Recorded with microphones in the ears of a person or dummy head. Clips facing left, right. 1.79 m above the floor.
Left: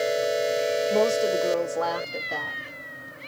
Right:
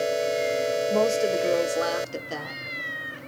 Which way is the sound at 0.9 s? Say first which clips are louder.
Even; 5° left (ahead or behind).